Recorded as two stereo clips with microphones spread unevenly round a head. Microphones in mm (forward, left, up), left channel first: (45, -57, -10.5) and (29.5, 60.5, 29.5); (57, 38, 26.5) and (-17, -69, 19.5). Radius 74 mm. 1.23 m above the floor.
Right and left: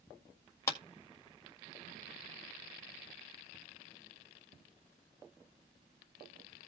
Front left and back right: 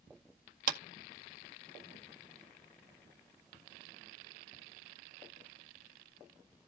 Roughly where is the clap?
Behind right.